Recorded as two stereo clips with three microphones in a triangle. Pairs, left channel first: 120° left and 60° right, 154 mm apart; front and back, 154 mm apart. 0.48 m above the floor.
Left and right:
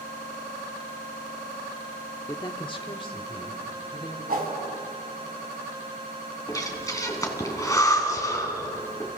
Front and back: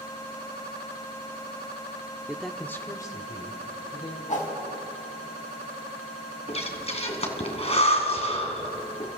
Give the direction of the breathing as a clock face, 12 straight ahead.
10 o'clock.